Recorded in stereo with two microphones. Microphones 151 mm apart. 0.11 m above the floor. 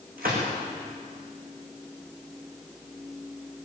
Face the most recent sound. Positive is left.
turn(degrees=-75)  # may be behind; listen again after turning